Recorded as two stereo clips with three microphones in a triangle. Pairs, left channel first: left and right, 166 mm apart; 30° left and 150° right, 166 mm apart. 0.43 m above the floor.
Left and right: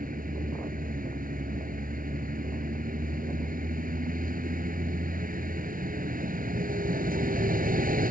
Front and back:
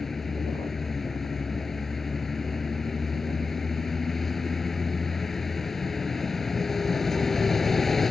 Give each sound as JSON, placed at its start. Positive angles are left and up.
{"t": 0.0, "sound": "a vehicle", "azimuth_deg": -60}